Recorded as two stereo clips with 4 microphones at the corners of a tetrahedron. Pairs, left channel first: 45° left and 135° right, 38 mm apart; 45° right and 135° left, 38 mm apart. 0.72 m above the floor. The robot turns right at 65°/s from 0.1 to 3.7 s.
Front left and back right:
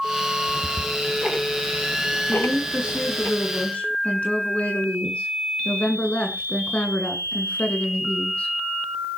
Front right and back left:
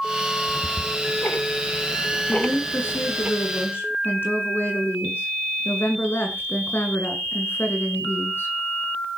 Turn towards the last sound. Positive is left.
turn(degrees=-15)